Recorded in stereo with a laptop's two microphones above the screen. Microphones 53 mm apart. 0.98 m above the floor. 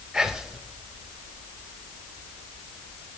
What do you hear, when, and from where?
0.1 s whispering: 10° right (ahead or behind), 0.8 m